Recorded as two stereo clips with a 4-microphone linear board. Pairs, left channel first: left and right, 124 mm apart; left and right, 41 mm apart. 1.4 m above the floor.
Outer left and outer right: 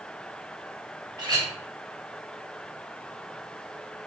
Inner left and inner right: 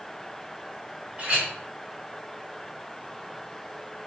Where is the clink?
35° right (ahead or behind), 1.2 m.